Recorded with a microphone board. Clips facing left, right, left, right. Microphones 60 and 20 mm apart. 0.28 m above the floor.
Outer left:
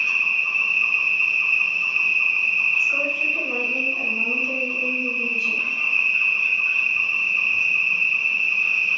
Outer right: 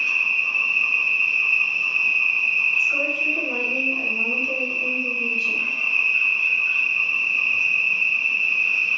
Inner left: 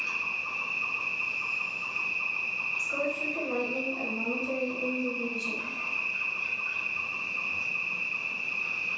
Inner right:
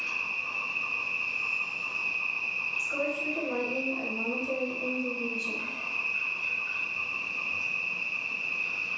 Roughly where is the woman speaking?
Centre.